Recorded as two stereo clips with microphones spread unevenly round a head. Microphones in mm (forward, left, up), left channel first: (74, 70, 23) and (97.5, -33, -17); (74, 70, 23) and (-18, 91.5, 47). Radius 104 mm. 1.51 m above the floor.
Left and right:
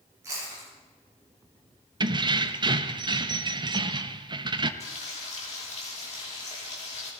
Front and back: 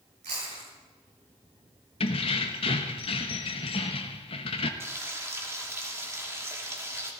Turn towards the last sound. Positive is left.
turn(degrees=105)